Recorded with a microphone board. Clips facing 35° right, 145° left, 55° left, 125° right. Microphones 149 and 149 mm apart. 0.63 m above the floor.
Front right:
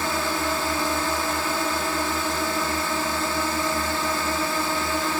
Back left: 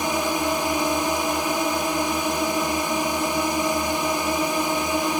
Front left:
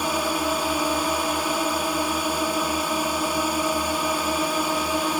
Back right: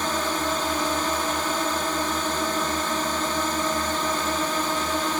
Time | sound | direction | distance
0.0 | a drone | 115° left | ?